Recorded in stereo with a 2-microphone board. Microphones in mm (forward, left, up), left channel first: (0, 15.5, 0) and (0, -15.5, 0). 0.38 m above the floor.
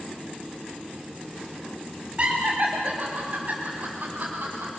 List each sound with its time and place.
2.2 s laughter: 40° right (ahead or behind), 2.5 m; by 4.7 s 55° right (ahead or behind), 4 m